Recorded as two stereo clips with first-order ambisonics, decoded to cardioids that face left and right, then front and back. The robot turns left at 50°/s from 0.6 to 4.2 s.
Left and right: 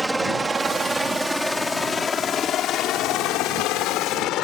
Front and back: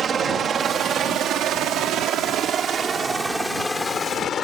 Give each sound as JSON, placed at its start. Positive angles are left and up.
{"t": 0.0, "sound": "a helicopter", "azimuth_deg": -165}